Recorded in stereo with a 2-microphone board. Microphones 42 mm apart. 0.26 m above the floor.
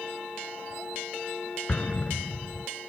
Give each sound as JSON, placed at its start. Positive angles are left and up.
{"t": 1.7, "sound": "an explosion", "side_deg": 30}